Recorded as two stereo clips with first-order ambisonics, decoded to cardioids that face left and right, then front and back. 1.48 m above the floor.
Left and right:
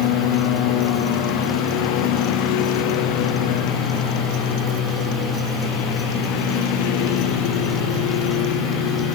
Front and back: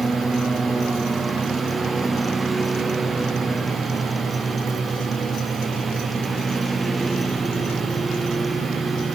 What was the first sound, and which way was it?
A lawn mower, 100° left.